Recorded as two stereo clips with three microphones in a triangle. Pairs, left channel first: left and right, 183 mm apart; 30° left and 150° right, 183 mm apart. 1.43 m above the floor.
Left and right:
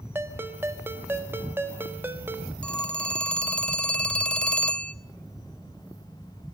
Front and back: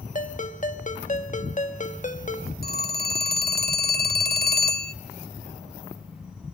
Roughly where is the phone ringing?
Ahead.